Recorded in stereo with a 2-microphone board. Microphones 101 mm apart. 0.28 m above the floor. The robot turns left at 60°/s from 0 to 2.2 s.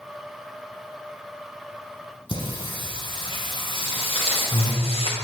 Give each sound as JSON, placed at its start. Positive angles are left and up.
{"t": 2.3, "sound": "singing", "side_deg": 55, "distance_m": 1.2}
{"t": 3.7, "sound": "footsteps", "side_deg": 60, "distance_m": 2.5}